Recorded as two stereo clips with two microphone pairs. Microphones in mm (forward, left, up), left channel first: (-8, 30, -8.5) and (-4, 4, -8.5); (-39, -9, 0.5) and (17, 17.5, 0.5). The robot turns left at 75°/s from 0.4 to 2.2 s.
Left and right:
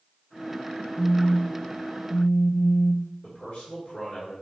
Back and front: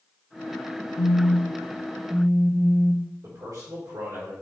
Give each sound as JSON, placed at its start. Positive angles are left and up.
{"t": 1.0, "sound": "a phone buzzing", "azimuth_deg": -170, "distance_m": 0.6}
{"t": 3.2, "sound": "a man speaking", "azimuth_deg": 55, "distance_m": 3.5}